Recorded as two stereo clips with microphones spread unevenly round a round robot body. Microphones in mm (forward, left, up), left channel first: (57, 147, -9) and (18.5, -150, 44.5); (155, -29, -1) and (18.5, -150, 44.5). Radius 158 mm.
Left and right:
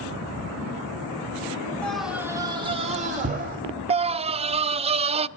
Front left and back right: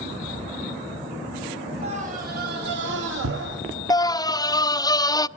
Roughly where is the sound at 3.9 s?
Ahead right.